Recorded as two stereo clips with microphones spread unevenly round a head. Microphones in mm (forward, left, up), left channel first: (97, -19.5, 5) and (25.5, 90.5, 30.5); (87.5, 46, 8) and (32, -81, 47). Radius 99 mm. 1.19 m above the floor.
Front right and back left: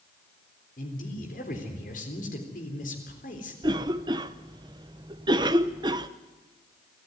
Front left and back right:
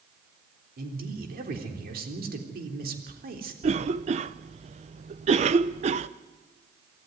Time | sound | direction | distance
0.8 | a man speaking | 100° right | 3.5 m
3.6 | a cough | 170° right | 0.6 m